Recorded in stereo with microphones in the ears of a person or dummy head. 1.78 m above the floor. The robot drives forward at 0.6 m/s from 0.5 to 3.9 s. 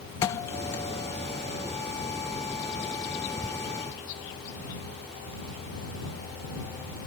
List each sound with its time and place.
0.2 s a thud: 15° left (ahead or behind)